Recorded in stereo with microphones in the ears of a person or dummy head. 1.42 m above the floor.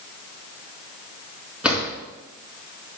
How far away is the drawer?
About 4 m.